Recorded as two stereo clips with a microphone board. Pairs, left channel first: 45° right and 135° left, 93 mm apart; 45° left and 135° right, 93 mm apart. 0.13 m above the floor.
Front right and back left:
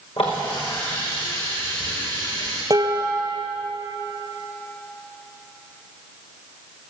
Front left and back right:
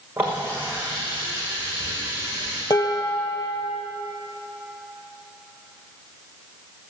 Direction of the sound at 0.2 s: 65° right.